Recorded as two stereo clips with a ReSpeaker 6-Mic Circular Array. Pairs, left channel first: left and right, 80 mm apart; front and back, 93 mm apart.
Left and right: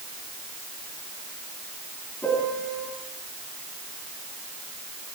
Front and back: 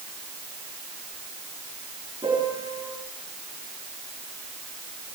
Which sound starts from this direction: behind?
A piano, at 2.2 s.